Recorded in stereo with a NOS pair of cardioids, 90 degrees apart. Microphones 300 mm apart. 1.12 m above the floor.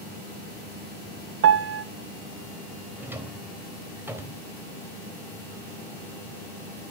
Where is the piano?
50° right, 0.9 m.